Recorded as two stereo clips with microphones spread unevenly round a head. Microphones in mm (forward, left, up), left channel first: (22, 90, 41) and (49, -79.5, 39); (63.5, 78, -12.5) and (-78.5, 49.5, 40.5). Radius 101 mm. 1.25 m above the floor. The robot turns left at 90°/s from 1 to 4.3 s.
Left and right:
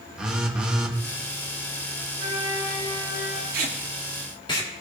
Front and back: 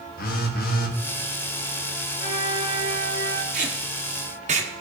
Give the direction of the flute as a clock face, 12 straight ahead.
4 o'clock.